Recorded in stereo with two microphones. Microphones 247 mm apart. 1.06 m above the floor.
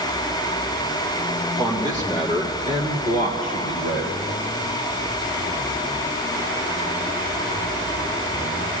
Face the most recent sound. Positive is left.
turn(degrees=-45)  # may be behind; listen again after turning